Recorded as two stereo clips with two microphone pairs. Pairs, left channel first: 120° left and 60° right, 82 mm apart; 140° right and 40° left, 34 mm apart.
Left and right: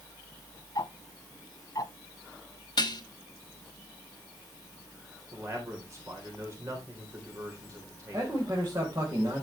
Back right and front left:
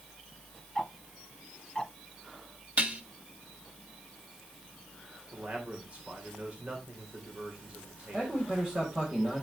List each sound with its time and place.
0.8 s ticking: 150° left, 1.0 m
2.8 s dishes clattering: 85° left, 1.0 m
5.3 s a man speaking: 10° right, 3.5 m
8.1 s a man speaking: 15° right, 4.5 m